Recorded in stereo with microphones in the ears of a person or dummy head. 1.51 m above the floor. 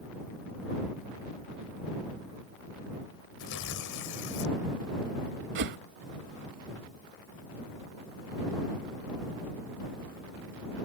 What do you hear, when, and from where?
3.4 s tearing paper: 70° left (ahead or behind)
5.5 s a whoosh: 60° right (ahead or behind)